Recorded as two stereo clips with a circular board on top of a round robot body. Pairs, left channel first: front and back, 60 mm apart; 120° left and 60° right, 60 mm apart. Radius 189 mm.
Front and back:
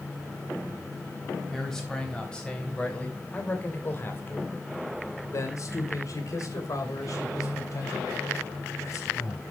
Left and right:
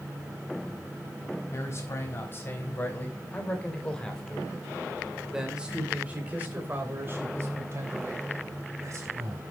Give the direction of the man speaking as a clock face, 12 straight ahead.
9 o'clock.